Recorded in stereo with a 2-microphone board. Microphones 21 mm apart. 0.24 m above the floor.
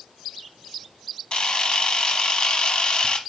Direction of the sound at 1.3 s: 45° left (ahead or behind).